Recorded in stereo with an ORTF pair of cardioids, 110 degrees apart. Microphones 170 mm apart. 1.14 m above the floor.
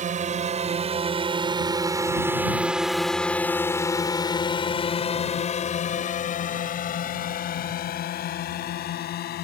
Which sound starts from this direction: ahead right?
A drone, at 0.0 s.